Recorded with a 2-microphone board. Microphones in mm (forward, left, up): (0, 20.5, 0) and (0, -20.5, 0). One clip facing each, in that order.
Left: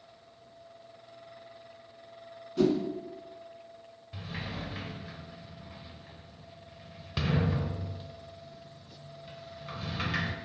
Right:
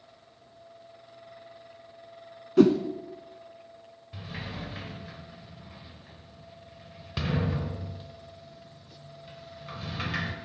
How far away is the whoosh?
About 0.5 m.